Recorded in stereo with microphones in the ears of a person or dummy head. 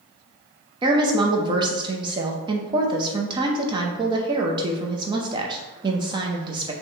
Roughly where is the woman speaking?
Right.